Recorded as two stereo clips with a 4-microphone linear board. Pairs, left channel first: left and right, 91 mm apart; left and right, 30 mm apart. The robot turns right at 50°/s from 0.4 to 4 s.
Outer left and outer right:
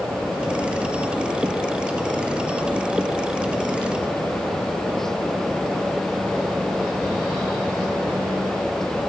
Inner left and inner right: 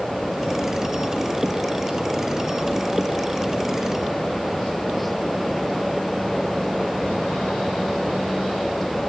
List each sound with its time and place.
Only background noise.